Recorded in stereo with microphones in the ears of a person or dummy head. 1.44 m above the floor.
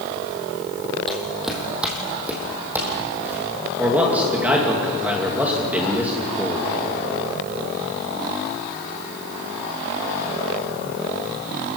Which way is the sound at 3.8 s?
10° right (ahead or behind).